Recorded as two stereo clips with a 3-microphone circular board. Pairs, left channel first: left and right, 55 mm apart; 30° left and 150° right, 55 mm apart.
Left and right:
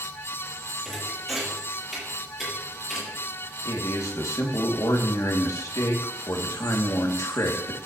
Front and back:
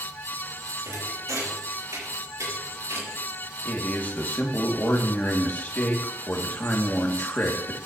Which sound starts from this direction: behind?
A thud, at 0.8 s.